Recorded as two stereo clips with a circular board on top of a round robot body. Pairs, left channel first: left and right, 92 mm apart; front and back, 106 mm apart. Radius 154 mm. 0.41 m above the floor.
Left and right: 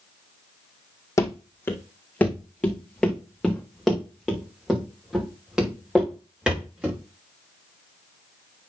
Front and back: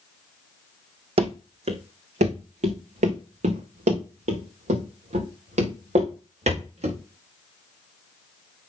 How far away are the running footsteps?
About 1.2 m.